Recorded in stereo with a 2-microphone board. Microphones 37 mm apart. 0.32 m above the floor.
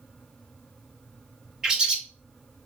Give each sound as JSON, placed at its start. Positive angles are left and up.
{"t": 1.6, "sound": "a bird", "side_deg": -20, "distance_m": 0.7}